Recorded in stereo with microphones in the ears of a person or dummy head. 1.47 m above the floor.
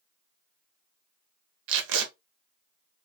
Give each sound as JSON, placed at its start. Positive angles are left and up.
{"t": 1.7, "sound": "tape being pulled", "side_deg": -65, "distance_m": 0.8}